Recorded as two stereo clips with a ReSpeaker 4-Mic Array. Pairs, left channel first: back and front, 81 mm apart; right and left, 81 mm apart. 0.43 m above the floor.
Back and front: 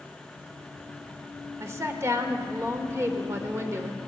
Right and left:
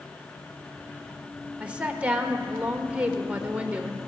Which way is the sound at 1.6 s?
25° left.